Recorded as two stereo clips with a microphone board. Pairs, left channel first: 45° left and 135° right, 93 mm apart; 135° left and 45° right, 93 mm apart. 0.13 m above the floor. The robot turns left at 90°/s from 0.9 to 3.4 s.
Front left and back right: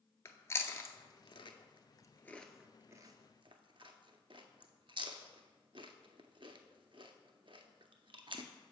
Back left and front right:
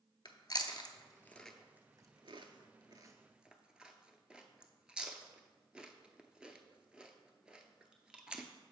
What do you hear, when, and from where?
0.2 s chewing: 100° left, 0.5 m; by 8.4 s 125° right, 0.5 m